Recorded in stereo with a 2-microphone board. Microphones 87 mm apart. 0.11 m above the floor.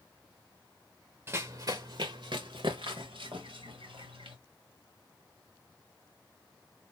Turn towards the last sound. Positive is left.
turn(degrees=-80)